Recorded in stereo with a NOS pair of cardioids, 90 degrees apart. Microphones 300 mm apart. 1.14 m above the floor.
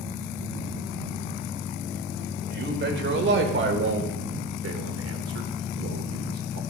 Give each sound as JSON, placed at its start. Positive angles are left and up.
{"t": 2.5, "sound": "a man speaking", "azimuth_deg": -35, "distance_m": 4.5}